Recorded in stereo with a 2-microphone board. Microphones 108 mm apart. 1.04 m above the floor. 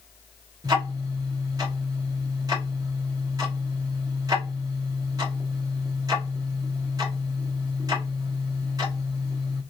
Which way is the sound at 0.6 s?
35° right (ahead or behind).